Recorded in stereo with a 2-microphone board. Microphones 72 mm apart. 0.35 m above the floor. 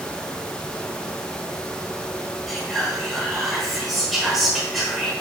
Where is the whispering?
Centre (ahead or behind), 1.0 m.